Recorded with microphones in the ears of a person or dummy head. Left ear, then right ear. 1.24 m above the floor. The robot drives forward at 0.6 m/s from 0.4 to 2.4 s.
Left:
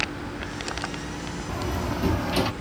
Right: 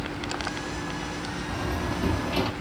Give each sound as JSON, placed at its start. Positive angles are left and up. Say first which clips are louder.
{"t": 1.5, "sound": "a door slam", "louder": "left 2 dB", "side_deg": 10}